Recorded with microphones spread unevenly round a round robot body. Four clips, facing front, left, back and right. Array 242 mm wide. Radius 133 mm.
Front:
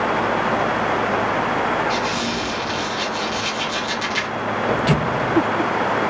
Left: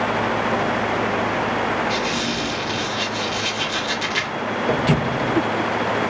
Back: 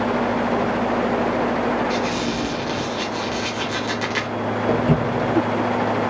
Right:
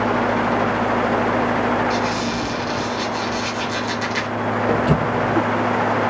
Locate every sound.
1.9 s a squeak: straight behind, 0.7 m
4.7 s footsteps: 155° left, 0.7 m